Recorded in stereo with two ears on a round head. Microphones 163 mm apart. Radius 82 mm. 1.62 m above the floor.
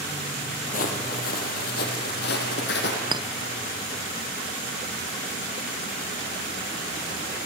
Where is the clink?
25° right (ahead or behind), 0.5 m.